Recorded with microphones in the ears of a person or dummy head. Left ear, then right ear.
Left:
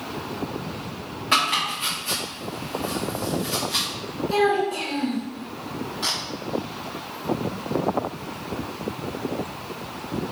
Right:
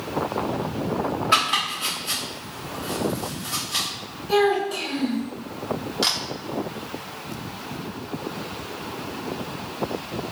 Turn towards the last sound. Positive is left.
turn(degrees=-30)  # may be behind; listen again after turning